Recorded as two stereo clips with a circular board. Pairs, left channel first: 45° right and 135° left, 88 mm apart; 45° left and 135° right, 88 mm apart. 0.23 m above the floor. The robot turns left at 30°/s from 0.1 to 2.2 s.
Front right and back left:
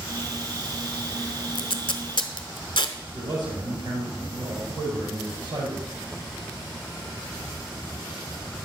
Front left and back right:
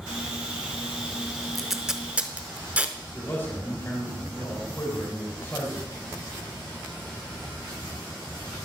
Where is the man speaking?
105° left, 5 m.